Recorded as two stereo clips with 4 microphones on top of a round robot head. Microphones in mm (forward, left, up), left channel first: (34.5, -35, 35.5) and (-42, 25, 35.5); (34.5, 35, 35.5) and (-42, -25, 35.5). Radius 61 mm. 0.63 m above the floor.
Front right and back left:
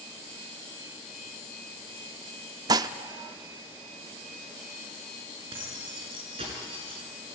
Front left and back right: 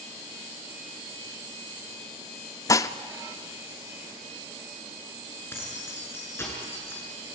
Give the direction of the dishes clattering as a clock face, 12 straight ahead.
9 o'clock.